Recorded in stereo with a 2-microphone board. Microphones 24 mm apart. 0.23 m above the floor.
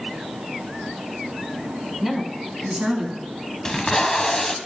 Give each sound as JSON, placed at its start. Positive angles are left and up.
{"t": 2.0, "sound": "a woman speaking", "side_deg": 0, "distance_m": 1.6}
{"t": 3.6, "sound": "tape being pulled", "side_deg": 25, "distance_m": 0.5}